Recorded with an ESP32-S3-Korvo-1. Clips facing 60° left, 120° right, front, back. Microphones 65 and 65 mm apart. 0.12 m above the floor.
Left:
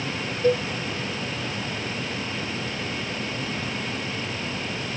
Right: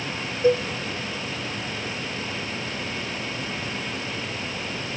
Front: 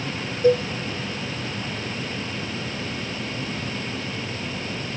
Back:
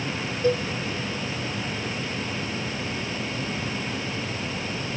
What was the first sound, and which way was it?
A cowbell, 50° right.